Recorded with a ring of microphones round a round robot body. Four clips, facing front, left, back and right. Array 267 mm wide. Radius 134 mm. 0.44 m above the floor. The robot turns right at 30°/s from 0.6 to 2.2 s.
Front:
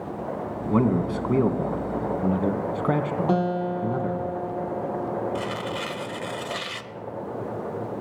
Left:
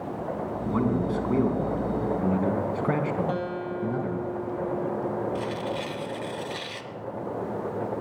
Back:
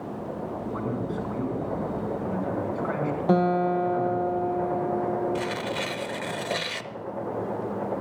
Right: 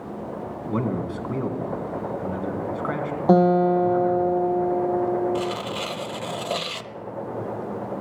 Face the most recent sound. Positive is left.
turn(degrees=-120)